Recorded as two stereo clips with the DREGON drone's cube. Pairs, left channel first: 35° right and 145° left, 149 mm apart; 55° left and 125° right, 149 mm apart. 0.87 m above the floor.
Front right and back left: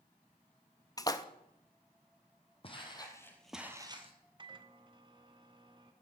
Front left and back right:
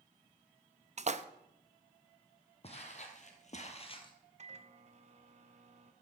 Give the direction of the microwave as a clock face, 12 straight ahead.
5 o'clock.